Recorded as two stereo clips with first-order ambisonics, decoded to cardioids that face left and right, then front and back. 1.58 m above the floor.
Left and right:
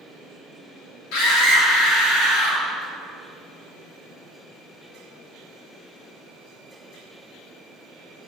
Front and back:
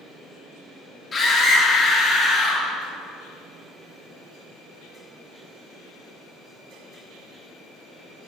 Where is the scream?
70° left, 3.5 m.